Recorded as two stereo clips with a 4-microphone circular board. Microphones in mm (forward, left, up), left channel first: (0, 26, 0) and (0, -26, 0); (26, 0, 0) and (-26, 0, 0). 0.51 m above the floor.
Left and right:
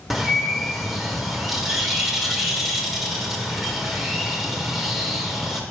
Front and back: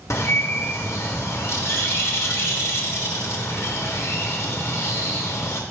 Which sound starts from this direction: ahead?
A bird, at 0.1 s.